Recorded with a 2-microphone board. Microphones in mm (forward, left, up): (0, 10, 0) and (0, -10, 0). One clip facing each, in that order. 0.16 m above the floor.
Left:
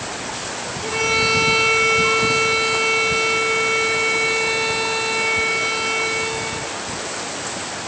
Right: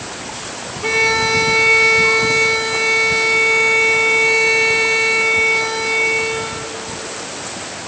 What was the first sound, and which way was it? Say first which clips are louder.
A violin: right 4 dB; 55° right (ahead or behind).